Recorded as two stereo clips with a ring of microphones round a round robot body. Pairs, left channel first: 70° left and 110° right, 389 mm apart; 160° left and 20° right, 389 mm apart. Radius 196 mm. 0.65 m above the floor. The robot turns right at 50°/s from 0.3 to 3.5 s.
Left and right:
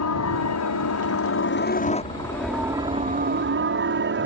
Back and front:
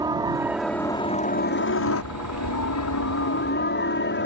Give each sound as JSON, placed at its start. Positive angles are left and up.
{"t": 0.0, "sound": "a helicopter", "azimuth_deg": 50}